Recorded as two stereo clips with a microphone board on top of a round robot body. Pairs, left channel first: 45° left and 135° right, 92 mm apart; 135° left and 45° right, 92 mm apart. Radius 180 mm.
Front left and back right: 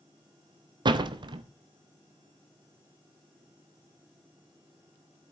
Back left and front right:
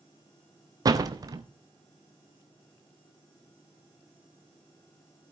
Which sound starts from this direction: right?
A door slam, at 0.8 s.